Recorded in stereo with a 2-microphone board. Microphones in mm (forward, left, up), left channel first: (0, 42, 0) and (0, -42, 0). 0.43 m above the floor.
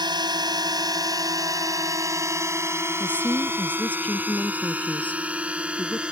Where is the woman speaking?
20° left (ahead or behind).